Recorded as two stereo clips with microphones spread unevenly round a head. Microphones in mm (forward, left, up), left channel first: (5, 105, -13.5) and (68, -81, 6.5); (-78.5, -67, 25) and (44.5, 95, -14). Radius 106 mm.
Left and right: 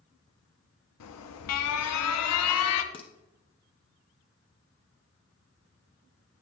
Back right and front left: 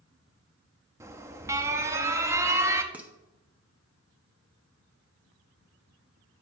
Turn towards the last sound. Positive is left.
turn(degrees=150)